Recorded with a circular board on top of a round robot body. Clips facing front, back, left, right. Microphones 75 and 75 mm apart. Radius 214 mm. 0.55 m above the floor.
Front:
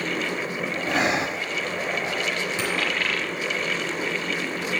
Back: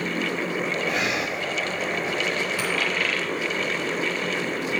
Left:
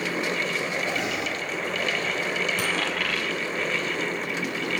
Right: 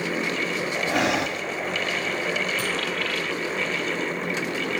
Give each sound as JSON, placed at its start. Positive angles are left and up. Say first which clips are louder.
{"t": 0.9, "sound": "breathing", "louder": "front 2 dB, right 5 dB", "azimuth_deg": -60, "distance_m": 1.2}
{"t": 2.6, "sound": "a dropped coin", "louder": "even, even", "azimuth_deg": 65, "distance_m": 8.0}